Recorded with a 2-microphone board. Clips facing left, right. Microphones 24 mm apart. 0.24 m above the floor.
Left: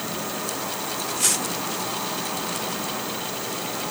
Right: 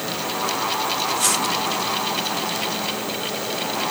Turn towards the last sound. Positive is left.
No sound to turn to.